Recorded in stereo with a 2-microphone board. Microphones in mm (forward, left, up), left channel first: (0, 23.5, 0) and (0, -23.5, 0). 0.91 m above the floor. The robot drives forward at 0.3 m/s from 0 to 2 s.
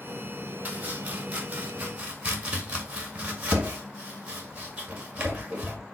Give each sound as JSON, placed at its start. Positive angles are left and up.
{"t": 0.7, "sound": "chopping", "side_deg": -35, "distance_m": 1.6}